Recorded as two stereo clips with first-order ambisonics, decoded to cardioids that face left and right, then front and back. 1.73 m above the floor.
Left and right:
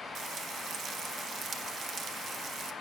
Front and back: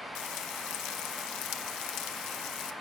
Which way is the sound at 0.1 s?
30° right.